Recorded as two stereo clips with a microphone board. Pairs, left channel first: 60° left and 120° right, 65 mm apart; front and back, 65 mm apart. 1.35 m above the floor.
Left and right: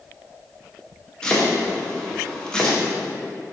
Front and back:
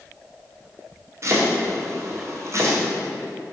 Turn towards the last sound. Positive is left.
turn(degrees=140)